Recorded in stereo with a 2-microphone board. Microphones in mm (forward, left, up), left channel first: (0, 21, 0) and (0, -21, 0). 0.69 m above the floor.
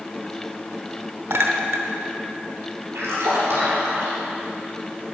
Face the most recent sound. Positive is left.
turn(degrees=-80)